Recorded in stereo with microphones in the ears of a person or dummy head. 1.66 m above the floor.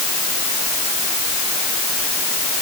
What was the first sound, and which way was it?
Only background noise.